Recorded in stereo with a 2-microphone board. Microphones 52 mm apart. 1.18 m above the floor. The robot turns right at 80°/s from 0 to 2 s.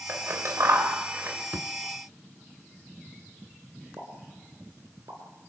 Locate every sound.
0.1 s scissors: 40° right (ahead or behind), 3.5 m
1.5 s a thud: 40° right (ahead or behind), 1.8 m; by 1.7 s 50° right (ahead or behind), 1.8 m
4.0 s a pop: 80° right, 5 m